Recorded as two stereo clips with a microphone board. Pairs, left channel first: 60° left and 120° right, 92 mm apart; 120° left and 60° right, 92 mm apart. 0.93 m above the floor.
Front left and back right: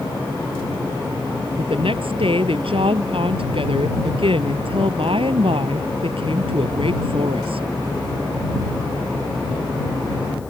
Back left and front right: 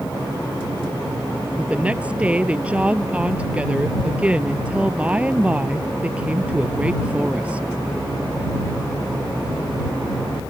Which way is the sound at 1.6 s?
135° right.